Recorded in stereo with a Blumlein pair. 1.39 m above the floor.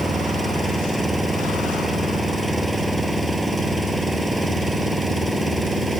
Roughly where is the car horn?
I don't hear a car horn.